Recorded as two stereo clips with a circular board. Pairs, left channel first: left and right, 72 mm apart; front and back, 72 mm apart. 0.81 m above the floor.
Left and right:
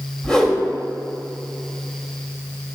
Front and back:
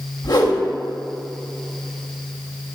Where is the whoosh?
10° left, 1.6 m.